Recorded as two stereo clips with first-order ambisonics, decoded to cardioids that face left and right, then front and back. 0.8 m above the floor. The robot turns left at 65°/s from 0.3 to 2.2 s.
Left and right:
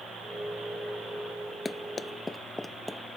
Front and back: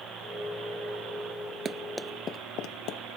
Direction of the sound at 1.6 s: 165° left.